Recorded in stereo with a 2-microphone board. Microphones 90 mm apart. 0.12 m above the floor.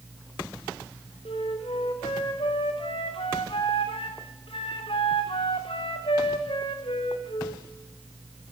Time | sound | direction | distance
1.2 | a flute | 80° left | 3.5 m